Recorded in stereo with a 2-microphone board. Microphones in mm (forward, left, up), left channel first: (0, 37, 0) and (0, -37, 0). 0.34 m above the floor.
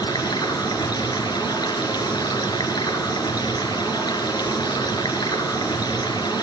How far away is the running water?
About 3.5 m.